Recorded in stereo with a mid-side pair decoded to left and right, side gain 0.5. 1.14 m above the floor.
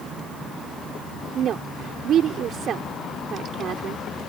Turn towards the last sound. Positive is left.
turn(degrees=-55)